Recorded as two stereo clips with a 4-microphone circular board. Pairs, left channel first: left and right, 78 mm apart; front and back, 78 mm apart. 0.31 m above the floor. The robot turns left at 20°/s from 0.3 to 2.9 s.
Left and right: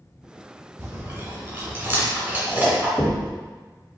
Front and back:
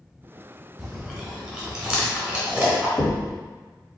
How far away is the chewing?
About 1.5 m.